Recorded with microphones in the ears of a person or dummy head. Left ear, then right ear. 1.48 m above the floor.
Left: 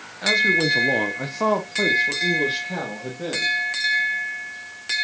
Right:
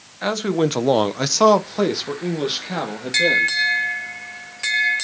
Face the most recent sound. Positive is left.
turn(degrees=-35)  # may be behind; listen again after turning